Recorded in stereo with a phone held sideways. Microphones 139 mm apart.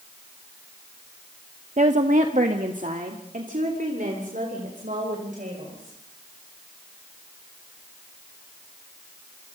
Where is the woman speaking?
55° right (ahead or behind), 1.0 m; by 6.0 s 75° right (ahead or behind), 6 m.